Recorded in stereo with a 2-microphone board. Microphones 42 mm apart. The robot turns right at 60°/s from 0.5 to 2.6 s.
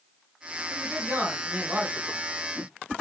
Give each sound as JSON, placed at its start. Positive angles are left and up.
{"t": 0.7, "sound": "a man speaking", "azimuth_deg": -130, "distance_m": 1.5}